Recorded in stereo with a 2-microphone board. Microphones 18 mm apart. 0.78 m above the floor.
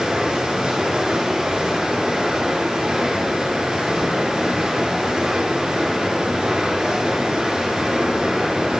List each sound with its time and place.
0.0 s running water: 60° right (ahead or behind), 2.5 m